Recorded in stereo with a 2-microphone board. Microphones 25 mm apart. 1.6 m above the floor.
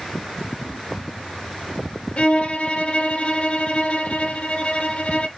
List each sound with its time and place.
2.2 s a violin: 45° left (ahead or behind), 0.5 m